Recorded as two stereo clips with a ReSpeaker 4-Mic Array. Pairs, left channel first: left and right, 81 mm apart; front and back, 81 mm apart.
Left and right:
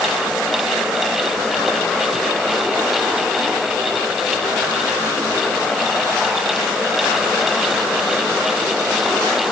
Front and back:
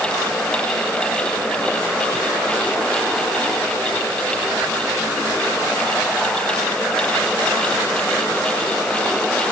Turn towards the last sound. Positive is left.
No sound to turn to.